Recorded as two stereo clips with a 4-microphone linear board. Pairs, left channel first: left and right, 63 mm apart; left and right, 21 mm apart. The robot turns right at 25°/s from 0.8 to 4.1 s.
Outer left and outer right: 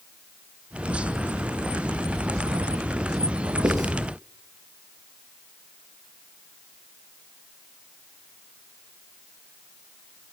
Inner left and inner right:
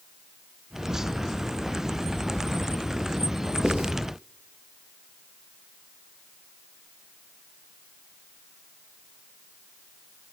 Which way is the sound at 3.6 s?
85° right.